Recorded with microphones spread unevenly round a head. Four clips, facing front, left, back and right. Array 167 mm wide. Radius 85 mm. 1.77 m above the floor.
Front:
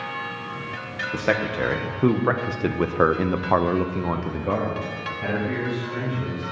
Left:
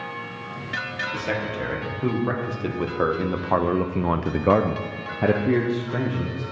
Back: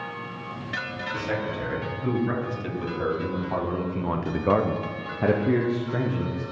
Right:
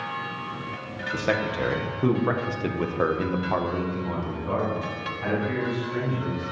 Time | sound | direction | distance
1.1 | a man speaking | 15° right | 1.8 m